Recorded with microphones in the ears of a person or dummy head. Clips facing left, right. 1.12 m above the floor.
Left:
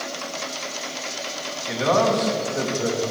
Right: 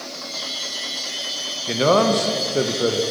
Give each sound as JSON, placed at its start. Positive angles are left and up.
{"t": 1.7, "sound": "a man speaking", "side_deg": -50, "distance_m": 1.0}